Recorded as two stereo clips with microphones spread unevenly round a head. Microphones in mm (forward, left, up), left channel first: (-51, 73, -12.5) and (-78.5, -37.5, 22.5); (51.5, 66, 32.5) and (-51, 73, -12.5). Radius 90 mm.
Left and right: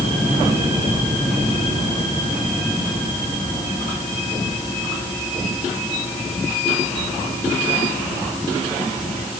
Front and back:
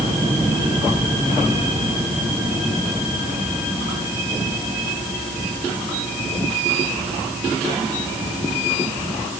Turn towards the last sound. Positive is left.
No sound to turn to.